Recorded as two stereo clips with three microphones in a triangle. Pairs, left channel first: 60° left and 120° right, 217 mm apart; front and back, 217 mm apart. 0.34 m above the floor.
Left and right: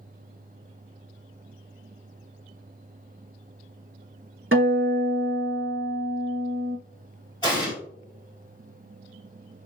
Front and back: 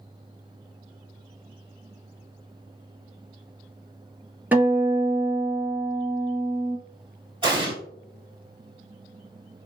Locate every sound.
4.5 s a guitar: 100° right, 1.3 m
7.4 s an explosion: 120° left, 2 m